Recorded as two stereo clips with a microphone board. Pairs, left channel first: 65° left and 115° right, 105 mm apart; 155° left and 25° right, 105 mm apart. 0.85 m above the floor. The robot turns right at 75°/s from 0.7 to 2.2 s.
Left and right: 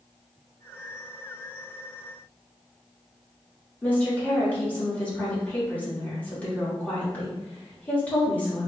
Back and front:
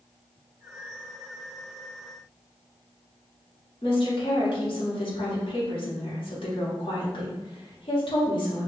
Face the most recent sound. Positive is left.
turn(degrees=140)